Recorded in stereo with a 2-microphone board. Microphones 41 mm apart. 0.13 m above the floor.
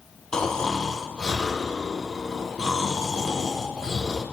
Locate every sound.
0.3 s snoring: 20° left (ahead or behind), 4 m